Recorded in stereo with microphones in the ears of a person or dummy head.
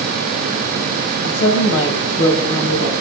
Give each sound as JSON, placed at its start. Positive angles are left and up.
{"t": 1.2, "sound": "a woman speaking", "side_deg": 75, "distance_m": 6.0}